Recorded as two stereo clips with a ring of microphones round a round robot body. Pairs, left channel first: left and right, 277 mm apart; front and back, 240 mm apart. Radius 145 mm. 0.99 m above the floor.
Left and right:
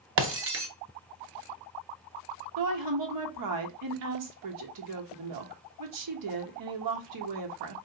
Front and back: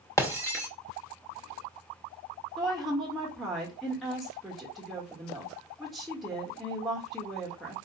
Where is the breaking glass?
75° right, 0.7 m.